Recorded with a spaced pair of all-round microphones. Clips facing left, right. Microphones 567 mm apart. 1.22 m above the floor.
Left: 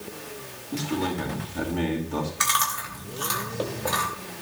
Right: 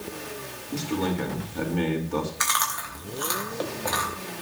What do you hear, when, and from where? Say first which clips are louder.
0.7 s a man speaking: even; 5° left (ahead or behind), 4.5 m
2.4 s chewing: left 1 dB; 50° left (ahead or behind), 3.5 m